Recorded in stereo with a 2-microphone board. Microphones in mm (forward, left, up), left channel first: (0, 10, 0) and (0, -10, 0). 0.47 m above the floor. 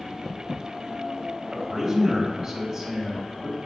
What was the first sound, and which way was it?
A man speaking, 20° right (ahead or behind).